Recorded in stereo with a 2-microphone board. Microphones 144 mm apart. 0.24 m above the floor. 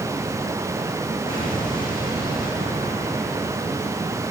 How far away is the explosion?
About 10 m.